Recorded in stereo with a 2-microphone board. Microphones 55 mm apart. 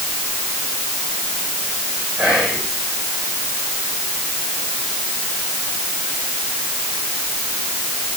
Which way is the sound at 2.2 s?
15° right (ahead or behind).